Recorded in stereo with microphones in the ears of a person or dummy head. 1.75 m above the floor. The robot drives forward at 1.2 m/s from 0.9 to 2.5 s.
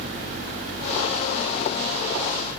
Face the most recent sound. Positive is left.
No sound to turn to.